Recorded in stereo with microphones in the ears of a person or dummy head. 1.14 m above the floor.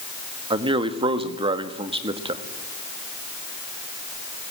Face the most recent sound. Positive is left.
turn(degrees=-25)  # may be behind; listen again after turning